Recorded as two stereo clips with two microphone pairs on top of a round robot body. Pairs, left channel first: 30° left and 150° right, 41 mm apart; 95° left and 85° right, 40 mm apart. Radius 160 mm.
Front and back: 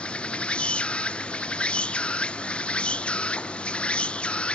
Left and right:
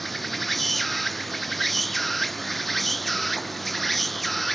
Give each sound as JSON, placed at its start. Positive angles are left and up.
{"t": 0.0, "sound": "an insect", "azimuth_deg": 5}